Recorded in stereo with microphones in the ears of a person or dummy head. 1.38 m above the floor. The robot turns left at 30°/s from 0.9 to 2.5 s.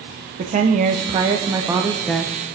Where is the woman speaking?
145° right, 0.7 m; by 2.3 s 175° left, 0.7 m.